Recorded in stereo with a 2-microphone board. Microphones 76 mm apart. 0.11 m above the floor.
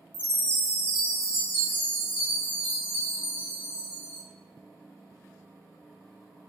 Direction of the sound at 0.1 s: 25° right (ahead or behind).